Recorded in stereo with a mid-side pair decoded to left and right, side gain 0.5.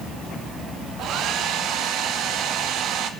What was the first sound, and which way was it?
A hair dryer, 70° right.